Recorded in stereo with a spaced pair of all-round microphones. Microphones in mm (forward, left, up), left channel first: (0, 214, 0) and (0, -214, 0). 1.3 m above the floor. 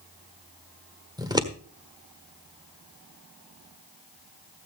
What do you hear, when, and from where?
1.2 s scissors: 10° right (ahead or behind), 1.3 m